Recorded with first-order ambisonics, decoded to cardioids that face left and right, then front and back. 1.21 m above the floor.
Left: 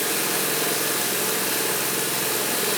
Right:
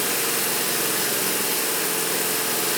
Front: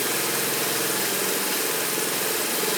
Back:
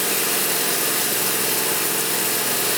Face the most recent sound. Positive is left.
turn(degrees=-170)